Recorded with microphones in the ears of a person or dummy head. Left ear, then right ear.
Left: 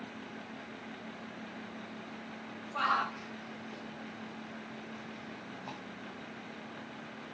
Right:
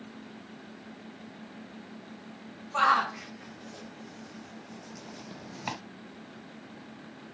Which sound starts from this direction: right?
A shout, at 2.7 s.